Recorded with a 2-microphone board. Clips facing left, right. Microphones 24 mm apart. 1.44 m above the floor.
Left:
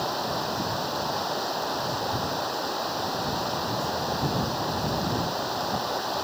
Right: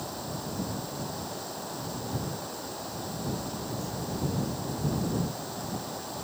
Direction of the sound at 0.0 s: 35° left (ahead or behind).